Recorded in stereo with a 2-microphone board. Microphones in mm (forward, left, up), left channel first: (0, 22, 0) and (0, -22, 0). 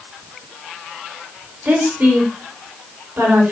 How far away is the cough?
I don't hear a cough.